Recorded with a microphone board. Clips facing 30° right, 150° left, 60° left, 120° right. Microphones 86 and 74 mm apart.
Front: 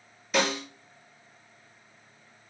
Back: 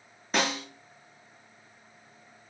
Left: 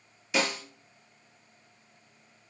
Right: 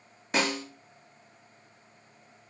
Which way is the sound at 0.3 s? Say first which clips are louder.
Front 2 dB, right 1 dB; 160° right.